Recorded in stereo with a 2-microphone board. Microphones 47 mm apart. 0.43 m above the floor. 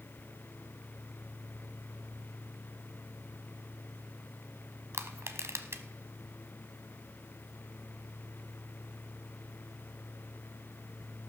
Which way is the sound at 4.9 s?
70° right (ahead or behind).